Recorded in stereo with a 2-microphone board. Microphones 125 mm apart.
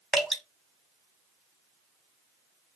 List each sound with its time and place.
0.1 s dripping: 5° right (ahead or behind), 1.0 m